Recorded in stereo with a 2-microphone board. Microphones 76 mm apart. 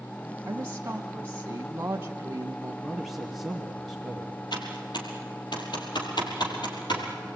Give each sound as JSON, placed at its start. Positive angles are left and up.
{"t": 0.4, "sound": "a woman speaking", "side_deg": -30, "distance_m": 1.2}
{"t": 2.8, "sound": "a man speaking", "side_deg": 5, "distance_m": 2.5}
{"t": 4.5, "sound": "typing on a keyboard", "side_deg": 75, "distance_m": 4.0}